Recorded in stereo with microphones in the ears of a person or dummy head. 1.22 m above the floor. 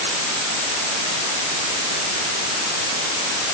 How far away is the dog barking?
I don't hear a dog barking.